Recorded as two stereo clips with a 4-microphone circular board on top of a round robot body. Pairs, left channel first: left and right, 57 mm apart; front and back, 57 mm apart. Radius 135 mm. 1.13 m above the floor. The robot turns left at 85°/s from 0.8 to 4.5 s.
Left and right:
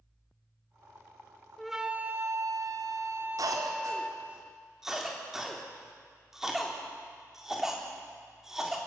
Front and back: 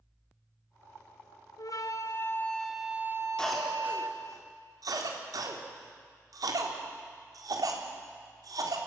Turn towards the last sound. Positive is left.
turn(degrees=-175)